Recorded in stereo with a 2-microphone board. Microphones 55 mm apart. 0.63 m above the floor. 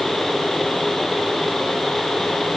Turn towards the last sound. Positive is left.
No sound to turn to.